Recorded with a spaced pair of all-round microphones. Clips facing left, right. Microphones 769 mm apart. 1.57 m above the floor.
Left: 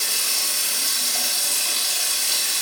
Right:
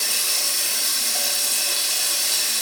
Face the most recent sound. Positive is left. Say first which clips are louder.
# right 1 dB
turn(degrees=5)  # may be behind; listen again after turning